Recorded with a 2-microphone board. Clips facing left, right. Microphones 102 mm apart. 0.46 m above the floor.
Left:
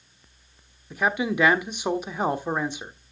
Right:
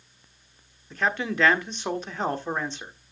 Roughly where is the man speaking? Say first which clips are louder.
Left 2 dB; centre.